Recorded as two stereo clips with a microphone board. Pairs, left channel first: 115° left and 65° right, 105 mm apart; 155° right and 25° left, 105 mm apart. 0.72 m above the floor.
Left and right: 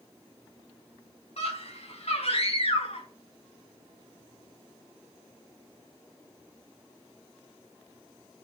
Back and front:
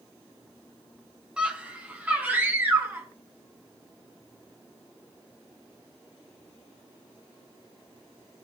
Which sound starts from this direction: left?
A scream, at 1.4 s.